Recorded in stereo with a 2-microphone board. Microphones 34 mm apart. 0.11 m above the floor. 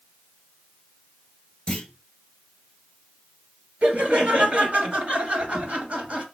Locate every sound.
1.7 s a clunk: 25° left (ahead or behind), 2 m
3.8 s laughter: 35° right (ahead or behind), 2.5 m